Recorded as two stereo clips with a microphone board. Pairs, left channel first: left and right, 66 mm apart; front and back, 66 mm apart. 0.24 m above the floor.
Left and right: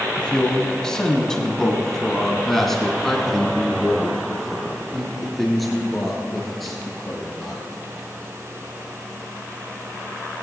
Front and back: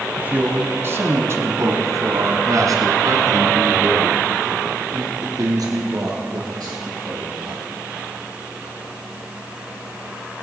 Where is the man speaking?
150° left, 1.2 m; by 7.6 s straight behind, 4.5 m.